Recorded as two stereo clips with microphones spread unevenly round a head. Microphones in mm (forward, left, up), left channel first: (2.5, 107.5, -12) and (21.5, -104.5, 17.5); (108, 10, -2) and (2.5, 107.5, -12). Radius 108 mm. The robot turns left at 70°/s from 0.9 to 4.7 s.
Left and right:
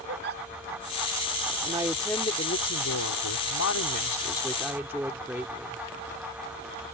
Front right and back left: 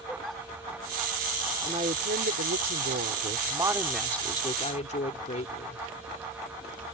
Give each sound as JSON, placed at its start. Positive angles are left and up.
{"t": 0.1, "sound": "a giggle", "azimuth_deg": -130}
{"t": 1.6, "sound": "a woman speaking", "azimuth_deg": -150}